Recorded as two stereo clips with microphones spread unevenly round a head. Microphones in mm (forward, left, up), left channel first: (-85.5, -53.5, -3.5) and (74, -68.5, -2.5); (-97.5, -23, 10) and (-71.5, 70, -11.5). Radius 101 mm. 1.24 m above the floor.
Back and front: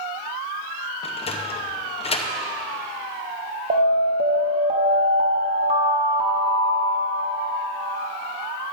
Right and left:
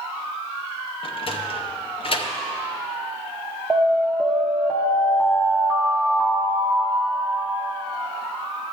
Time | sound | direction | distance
1.0 | a sliding door | 135° right | 0.8 m
3.7 | an alarm | 15° right | 0.8 m